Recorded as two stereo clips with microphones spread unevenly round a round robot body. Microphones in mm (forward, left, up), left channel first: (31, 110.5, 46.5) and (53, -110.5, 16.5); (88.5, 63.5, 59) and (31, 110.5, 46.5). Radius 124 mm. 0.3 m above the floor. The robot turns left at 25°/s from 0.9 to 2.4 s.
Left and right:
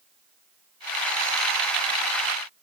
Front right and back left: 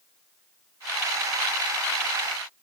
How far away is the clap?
I don't hear a clap.